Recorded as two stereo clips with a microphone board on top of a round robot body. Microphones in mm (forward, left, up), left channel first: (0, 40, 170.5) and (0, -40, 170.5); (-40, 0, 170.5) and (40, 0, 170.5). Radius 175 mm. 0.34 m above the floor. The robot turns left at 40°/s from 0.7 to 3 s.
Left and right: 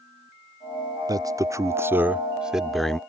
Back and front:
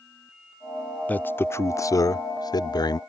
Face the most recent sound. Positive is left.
turn(degrees=170)